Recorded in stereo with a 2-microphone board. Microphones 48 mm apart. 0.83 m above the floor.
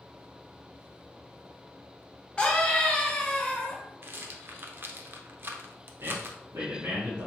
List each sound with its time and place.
2.4 s a scream: 20° left (ahead or behind), 1.2 m
4.0 s a rattle: 45° right (ahead or behind), 0.5 m
6.0 s a man speaking: 70° right (ahead or behind), 1.2 m